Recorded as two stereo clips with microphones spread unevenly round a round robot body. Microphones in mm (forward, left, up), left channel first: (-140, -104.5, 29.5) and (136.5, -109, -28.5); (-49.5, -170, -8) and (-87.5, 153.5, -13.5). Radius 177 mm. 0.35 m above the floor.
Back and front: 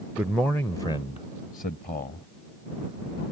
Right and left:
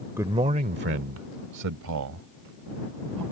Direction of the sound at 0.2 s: 30° left.